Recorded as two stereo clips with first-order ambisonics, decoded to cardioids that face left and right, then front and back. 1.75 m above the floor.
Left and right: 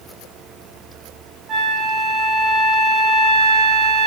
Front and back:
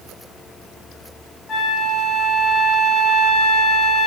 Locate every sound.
1.5 s a flute: 55° right, 0.6 m